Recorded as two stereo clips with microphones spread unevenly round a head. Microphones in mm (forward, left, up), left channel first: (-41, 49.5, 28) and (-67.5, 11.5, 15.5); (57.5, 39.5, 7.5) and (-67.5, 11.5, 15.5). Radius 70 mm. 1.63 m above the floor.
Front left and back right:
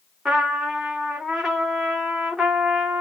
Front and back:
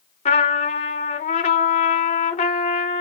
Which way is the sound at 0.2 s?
35° right.